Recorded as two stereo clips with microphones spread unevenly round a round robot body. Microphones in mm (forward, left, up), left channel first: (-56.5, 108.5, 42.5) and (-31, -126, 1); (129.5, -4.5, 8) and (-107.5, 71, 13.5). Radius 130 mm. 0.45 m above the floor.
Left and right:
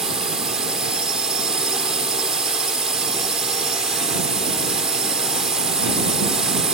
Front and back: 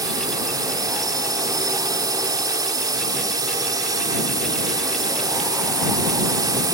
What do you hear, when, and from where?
0.0 s a drone: 140° right